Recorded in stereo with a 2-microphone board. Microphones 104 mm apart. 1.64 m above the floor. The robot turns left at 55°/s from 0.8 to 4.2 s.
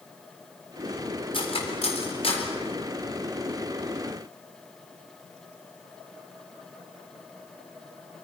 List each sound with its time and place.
1.3 s cutlery clinking: 55° left (ahead or behind), 3.5 m; by 2.5 s 60° left (ahead or behind), 3.5 m